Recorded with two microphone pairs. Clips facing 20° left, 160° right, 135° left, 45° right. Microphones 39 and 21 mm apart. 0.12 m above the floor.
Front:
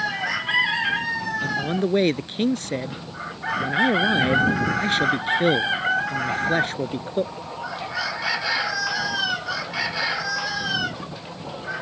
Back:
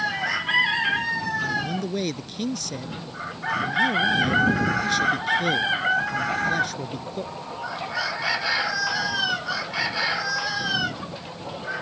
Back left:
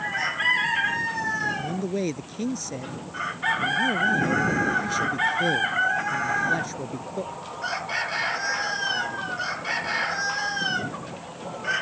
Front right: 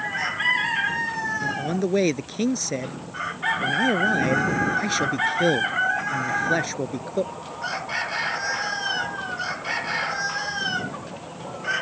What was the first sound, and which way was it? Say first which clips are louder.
A man speaking: front 2 dB, front right 2 dB; 5° right.